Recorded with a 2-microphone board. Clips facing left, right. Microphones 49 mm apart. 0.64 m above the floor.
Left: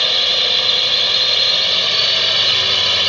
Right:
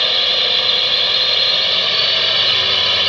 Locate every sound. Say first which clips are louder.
0.0 s a drone: even; 5° right (ahead or behind)